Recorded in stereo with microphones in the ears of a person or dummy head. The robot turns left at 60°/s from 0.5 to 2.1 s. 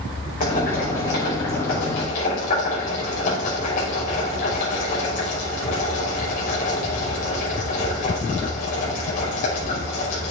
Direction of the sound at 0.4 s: 40° left (ahead or behind).